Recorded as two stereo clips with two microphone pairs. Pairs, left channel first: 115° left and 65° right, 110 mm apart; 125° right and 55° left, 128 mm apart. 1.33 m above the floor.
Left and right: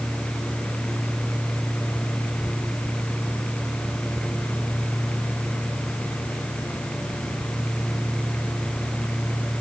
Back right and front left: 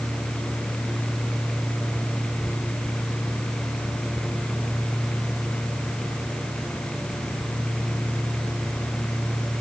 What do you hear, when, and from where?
Only background noise.